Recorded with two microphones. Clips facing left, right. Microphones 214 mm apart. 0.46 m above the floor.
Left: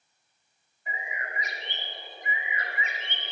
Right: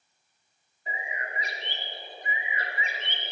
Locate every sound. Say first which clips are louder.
0.9 s a bird: right 1 dB; 30° right (ahead or behind), 0.7 m